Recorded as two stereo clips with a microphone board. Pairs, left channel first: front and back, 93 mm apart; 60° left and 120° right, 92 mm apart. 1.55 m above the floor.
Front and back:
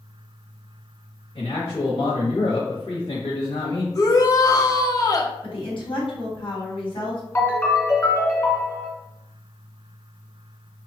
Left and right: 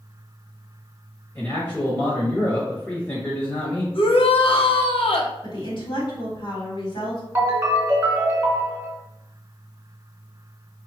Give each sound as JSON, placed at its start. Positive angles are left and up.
{"t": 1.4, "sound": "a man speaking", "azimuth_deg": -5, "distance_m": 1.2}
{"t": 3.9, "sound": "a shout", "azimuth_deg": 50, "distance_m": 0.7}
{"t": 5.4, "sound": "a woman speaking", "azimuth_deg": 30, "distance_m": 1.5}
{"t": 7.3, "sound": "a ringtone", "azimuth_deg": -60, "distance_m": 1.4}